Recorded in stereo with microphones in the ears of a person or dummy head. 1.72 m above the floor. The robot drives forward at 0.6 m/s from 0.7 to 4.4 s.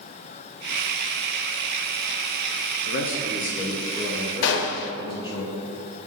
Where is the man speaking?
60° left (ahead or behind), 0.7 m; by 5.4 s 30° left (ahead or behind), 1.3 m.